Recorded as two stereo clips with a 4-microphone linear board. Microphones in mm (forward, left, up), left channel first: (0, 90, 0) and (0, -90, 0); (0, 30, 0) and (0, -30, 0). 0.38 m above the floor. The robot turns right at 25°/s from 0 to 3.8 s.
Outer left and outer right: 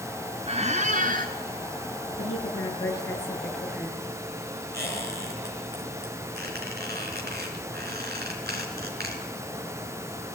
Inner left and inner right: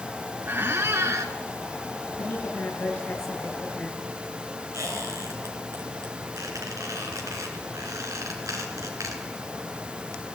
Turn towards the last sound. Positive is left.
turn(degrees=-70)  # may be behind; listen again after turning